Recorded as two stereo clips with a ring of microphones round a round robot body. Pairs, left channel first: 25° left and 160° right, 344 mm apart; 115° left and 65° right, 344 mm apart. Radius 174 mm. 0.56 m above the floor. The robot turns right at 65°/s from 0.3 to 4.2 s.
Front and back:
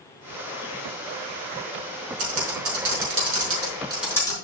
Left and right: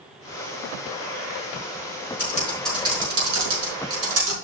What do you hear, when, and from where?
2.2 s typing on a keyboard: 170° left, 5.5 m; by 4.3 s 60° right, 5.5 m